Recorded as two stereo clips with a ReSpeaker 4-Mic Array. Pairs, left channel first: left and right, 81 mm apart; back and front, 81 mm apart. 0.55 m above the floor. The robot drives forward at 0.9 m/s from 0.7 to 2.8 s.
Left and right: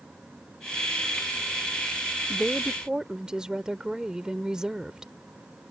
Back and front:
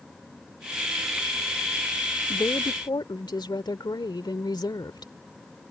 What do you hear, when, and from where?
2.3 s a woman speaking: 165° right; by 5.1 s 170° right